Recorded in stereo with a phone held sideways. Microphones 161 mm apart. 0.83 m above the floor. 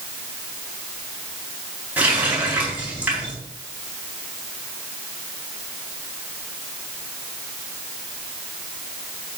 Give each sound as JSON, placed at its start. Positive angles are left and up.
{"t": 2.0, "sound": "a running tap", "side_deg": -10, "distance_m": 4.5}